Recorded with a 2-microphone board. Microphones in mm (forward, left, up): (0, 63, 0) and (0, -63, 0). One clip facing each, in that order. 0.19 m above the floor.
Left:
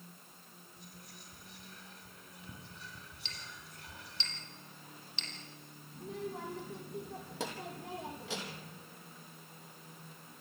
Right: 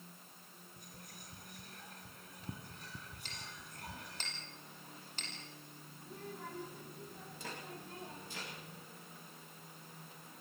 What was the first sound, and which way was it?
Whispering, 45° right (ahead or behind).